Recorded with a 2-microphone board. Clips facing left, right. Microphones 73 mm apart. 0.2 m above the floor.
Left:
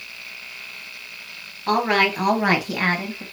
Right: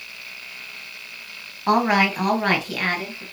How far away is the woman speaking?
About 1.2 m.